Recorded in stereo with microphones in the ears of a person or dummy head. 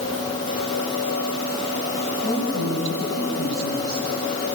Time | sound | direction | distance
2.2 | a woman speaking | 55° left (ahead or behind) | 10 m